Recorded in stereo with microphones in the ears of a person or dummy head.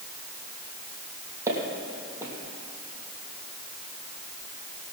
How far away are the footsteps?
About 3 m.